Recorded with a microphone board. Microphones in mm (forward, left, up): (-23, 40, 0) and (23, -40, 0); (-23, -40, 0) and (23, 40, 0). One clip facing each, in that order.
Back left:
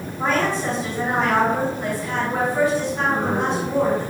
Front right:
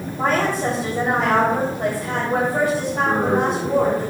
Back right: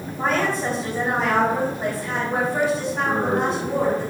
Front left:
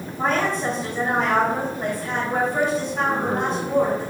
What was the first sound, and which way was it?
A woman speaking, 30° right.